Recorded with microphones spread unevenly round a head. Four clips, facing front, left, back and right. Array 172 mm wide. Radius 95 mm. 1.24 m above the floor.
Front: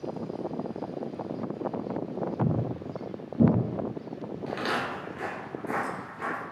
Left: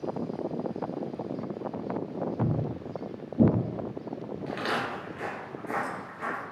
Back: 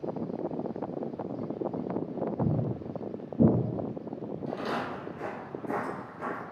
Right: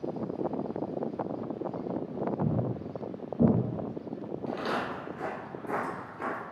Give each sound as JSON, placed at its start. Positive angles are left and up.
{"t": 2.4, "sound": "footsteps", "azimuth_deg": 125, "distance_m": 1.5}
{"t": 4.5, "sound": "footsteps", "azimuth_deg": 50, "distance_m": 1.2}